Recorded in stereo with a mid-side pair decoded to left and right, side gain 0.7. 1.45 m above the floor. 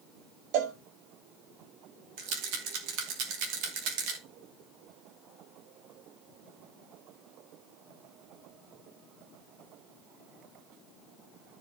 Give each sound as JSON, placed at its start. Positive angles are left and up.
{"t": 0.5, "sound": "a cowbell", "azimuth_deg": -65, "distance_m": 1.7}
{"t": 2.2, "sound": "a rattle", "azimuth_deg": -70, "distance_m": 2.5}